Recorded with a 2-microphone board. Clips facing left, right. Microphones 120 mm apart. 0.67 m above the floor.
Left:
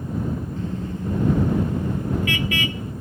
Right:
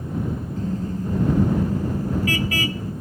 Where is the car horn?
40° right (ahead or behind); by 2.9 s 35° right (ahead or behind).